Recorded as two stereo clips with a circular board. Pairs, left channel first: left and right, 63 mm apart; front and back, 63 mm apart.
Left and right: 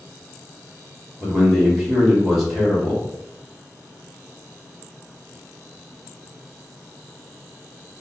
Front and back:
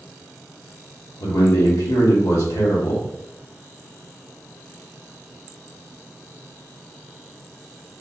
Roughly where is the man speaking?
Ahead.